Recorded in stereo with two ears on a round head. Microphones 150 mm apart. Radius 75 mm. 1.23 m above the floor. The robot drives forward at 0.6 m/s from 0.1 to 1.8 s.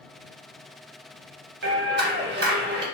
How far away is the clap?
About 1.2 m.